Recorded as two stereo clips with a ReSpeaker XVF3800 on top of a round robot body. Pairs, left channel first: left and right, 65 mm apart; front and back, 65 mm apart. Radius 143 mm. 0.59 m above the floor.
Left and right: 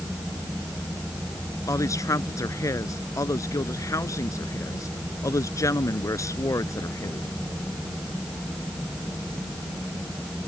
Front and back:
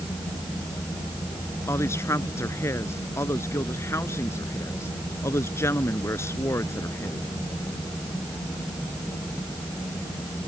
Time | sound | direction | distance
1.7 | a woman speaking | 50° left | ?